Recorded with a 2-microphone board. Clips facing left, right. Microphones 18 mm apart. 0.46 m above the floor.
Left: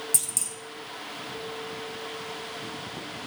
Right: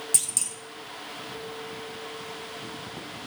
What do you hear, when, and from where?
0.1 s a clunk: 20° right (ahead or behind), 1.0 m